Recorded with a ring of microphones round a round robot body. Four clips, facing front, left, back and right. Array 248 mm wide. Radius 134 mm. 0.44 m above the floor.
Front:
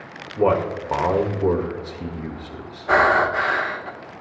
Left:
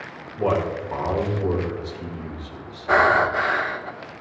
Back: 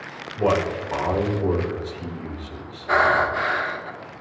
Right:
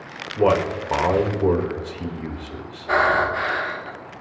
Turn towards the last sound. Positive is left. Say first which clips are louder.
# left 2 dB, front 2 dB
turn(degrees=30)